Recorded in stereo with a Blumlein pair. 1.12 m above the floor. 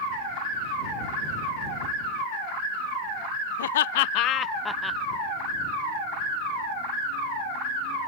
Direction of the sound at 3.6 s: 65° left.